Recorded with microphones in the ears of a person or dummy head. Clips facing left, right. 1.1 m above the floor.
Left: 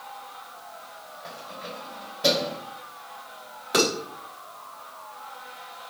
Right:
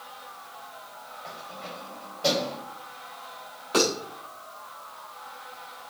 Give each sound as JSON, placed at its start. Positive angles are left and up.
{"t": 1.2, "sound": "keys jangling", "side_deg": 15, "distance_m": 3.5}
{"t": 3.7, "sound": "dishes clattering", "side_deg": 15, "distance_m": 3.5}